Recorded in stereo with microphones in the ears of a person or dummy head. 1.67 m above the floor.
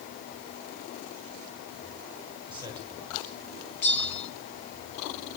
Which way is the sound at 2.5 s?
20° right (ahead or behind).